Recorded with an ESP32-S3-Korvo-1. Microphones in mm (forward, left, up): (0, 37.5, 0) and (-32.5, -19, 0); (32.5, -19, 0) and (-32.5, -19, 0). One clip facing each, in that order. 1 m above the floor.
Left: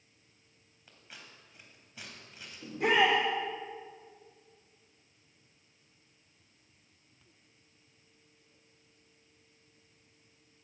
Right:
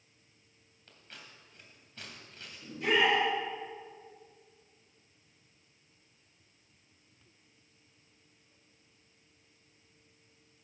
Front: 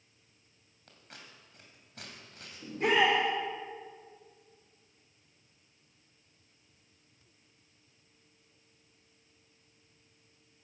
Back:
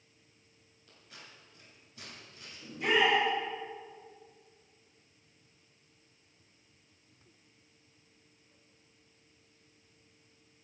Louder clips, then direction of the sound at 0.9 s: Even, front 1 dB; 20° right.